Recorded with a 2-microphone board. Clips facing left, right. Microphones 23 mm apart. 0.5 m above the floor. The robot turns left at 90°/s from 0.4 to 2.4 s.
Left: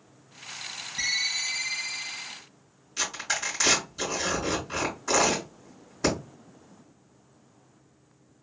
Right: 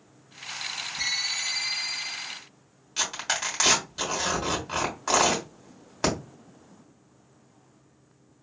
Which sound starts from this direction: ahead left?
A ringtone, at 1.0 s.